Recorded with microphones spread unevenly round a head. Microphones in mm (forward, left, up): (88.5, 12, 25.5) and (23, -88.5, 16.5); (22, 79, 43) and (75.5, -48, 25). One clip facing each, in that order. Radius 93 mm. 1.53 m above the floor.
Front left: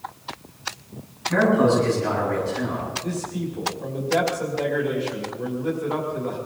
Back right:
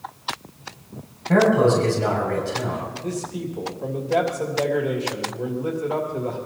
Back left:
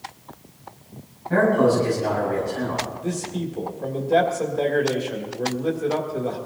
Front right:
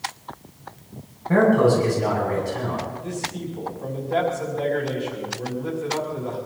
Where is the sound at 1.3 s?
110° right, 7 m.